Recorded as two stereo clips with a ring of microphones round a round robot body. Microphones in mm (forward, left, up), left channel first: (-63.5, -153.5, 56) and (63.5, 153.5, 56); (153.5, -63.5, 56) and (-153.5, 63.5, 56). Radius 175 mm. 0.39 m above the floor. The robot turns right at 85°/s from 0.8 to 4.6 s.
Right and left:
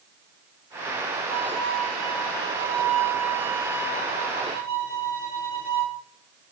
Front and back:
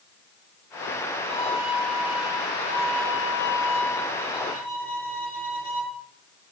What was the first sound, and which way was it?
A violin, 35° left.